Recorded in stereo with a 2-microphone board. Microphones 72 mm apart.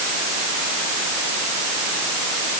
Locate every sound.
Only background noise.